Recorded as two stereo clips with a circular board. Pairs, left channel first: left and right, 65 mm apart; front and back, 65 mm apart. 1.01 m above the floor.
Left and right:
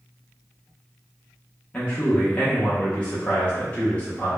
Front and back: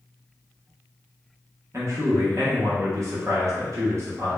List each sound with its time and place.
1.7 s a man speaking: 155° left, 0.7 m